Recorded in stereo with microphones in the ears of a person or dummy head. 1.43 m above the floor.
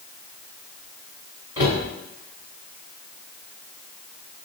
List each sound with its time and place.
1.6 s a cupboard door: 20° right (ahead or behind), 1.6 m